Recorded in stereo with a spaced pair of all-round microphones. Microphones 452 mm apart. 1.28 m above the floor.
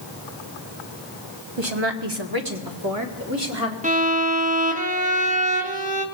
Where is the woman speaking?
70° right (ahead or behind), 1.2 m; by 3.7 s 30° right (ahead or behind), 2 m.